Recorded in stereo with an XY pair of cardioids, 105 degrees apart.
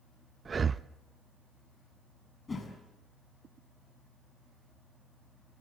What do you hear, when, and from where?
0.5 s breathing: 35° right, 0.6 m
2.5 s a whoosh: 25° left, 6 m